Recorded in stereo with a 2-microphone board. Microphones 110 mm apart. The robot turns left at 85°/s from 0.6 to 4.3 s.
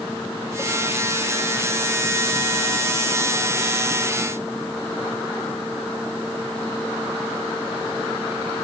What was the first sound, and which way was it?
Only background noise.